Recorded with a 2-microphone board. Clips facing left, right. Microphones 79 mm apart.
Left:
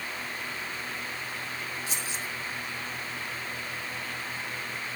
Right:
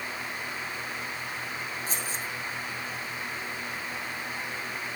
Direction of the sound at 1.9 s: 40° right (ahead or behind).